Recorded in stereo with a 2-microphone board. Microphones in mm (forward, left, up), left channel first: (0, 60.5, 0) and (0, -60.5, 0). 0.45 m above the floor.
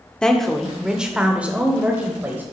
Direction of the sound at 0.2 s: 5° left (ahead or behind).